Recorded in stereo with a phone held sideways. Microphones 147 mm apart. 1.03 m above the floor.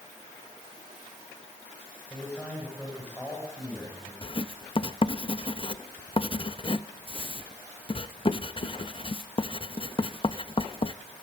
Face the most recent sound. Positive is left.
turn(degrees=35)  # may be behind; listen again after turning